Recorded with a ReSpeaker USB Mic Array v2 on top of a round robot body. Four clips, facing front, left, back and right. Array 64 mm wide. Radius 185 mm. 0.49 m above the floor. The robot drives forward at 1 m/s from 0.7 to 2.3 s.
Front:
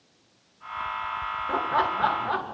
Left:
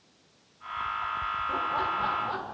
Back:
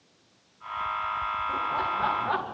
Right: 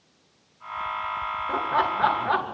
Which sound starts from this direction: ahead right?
Laughter, at 1.5 s.